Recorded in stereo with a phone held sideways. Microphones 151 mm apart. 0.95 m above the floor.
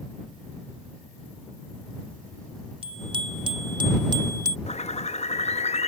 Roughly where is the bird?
Left.